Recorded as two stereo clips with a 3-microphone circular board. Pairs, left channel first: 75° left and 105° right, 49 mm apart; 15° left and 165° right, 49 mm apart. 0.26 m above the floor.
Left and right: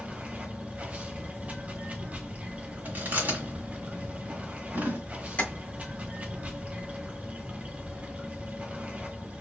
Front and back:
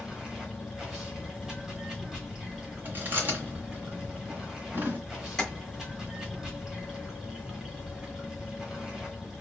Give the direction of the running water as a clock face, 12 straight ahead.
3 o'clock.